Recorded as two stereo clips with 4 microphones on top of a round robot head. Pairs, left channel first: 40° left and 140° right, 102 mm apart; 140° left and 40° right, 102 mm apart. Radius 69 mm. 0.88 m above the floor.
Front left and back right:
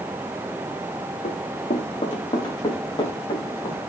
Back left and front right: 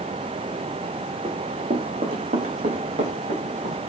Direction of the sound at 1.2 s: Straight ahead.